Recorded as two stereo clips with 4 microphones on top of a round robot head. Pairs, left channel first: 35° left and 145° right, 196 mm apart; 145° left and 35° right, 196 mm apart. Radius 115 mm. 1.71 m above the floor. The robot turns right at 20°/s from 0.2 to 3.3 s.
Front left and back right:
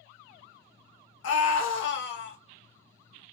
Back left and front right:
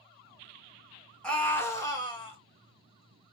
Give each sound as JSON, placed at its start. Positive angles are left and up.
{"t": 1.2, "sound": "a scream", "azimuth_deg": 55, "distance_m": 2.0}